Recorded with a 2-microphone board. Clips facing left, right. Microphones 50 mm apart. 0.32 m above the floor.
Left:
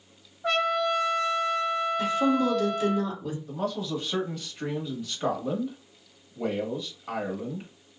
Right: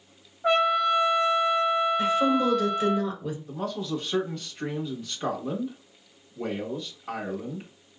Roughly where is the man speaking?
Centre.